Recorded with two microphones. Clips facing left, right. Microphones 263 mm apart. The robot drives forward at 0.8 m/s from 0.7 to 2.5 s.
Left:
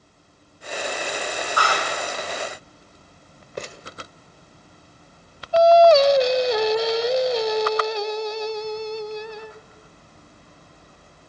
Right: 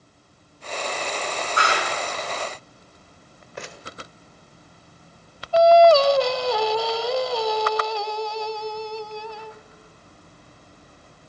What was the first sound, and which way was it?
A clap, 25° right (ahead or behind).